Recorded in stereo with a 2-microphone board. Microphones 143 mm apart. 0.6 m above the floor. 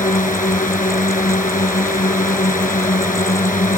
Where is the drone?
65° left (ahead or behind).